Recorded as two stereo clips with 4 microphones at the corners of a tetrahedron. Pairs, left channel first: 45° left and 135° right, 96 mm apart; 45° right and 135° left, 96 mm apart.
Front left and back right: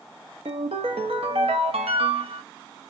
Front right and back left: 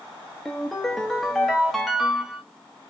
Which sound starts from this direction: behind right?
A ringtone, at 0.5 s.